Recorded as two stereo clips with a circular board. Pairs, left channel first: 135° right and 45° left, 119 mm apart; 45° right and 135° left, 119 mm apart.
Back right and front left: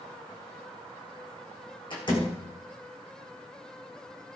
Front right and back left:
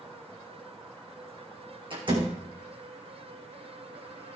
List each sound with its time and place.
1.9 s a door slam: straight behind, 4.5 m